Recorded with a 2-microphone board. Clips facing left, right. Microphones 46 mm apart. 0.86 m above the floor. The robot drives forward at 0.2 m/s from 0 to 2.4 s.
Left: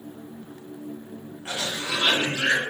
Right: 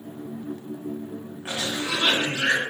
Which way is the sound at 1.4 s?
15° right (ahead or behind).